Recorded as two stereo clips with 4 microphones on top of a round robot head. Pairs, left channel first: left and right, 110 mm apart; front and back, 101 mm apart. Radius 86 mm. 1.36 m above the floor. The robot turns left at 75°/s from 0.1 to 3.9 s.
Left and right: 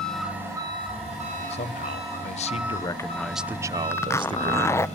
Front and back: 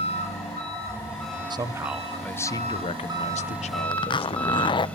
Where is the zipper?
30° left, 0.5 m.